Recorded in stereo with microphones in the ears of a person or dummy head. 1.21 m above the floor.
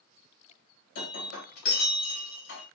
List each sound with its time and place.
0.9 s breaking glass: 60° left (ahead or behind), 2.0 m